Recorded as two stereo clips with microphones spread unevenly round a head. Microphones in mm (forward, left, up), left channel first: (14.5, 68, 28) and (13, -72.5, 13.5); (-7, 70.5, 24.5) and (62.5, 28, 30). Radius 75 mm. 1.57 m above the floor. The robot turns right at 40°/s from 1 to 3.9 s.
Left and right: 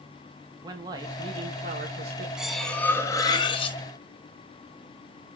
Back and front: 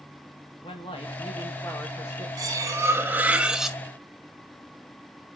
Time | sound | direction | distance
0.6 | a man speaking | 160° right | 2 m
2.4 | cutlery clinking | straight ahead | 1.3 m